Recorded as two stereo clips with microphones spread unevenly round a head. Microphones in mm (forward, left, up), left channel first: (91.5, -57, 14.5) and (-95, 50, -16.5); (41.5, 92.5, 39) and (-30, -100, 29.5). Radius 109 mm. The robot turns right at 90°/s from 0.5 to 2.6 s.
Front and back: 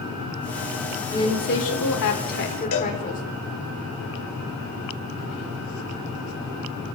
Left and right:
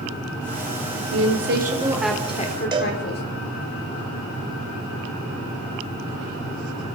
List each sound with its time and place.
1.1 s a woman speaking: 110° right, 4 m; by 3.2 s 25° left, 4 m
2.7 s a cowbell: 40° right, 3 m